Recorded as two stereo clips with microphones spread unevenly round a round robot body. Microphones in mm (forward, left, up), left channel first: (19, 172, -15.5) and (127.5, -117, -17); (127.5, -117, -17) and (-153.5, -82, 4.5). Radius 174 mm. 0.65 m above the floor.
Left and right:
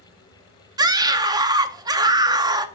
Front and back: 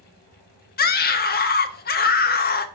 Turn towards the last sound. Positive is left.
turn(degrees=0)